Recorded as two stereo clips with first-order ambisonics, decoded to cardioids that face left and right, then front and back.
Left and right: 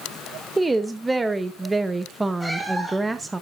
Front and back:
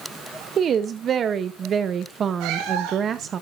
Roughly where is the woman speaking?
Behind.